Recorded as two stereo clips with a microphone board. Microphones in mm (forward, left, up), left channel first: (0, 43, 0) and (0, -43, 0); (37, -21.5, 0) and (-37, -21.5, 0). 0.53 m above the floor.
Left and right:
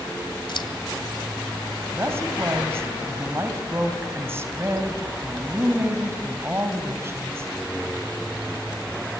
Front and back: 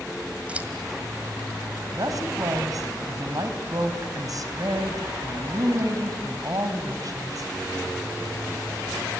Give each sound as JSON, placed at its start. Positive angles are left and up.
{"t": 0.5, "sound": "scissors", "azimuth_deg": 110, "distance_m": 1.8}
{"t": 1.9, "sound": "a woman speaking", "azimuth_deg": -150, "distance_m": 3.0}